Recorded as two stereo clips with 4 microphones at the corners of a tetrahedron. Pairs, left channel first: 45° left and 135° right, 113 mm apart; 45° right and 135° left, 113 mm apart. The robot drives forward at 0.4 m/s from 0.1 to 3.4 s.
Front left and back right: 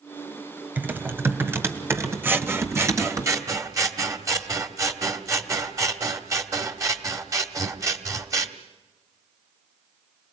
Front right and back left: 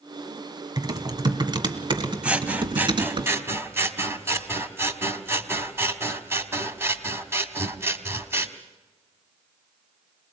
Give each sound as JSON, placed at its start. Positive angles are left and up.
{"t": 0.8, "sound": "typing on a keyboard", "azimuth_deg": 160, "distance_m": 1.7}
{"t": 2.2, "sound": "scissors", "azimuth_deg": -170, "distance_m": 1.3}